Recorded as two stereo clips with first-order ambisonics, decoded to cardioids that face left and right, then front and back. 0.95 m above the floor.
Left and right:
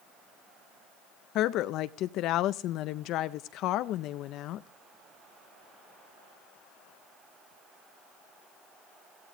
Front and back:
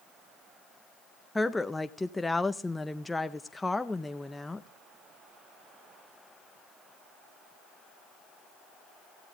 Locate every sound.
1.4 s a woman speaking: 80° left, 0.5 m